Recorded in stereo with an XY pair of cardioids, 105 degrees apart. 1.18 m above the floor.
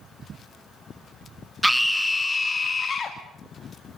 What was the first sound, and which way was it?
A scream, 5° right.